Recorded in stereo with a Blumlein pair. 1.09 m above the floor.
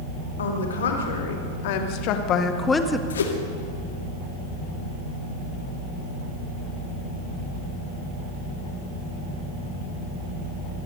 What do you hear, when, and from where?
0.4 s a woman speaking: 65° left, 4.5 m; by 3.0 s 5° right, 1.6 m
3.1 s a whoosh: 65° left, 2 m